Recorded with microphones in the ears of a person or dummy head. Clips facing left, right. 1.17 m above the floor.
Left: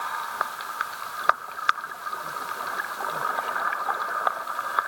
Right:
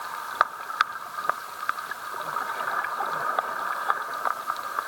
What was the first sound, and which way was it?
Only background noise.